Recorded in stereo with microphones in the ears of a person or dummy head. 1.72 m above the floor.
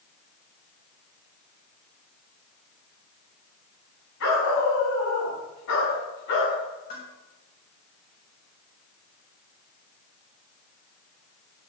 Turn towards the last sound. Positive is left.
turn(degrees=40)  # may be behind; listen again after turning